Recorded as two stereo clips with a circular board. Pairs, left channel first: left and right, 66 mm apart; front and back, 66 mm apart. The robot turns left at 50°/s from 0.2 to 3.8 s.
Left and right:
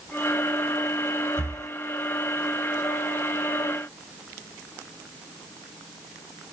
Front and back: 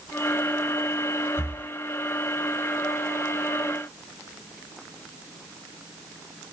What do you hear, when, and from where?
1.4 s breathing: 45° right, 1.0 m; by 1.7 s 65° right, 1.0 m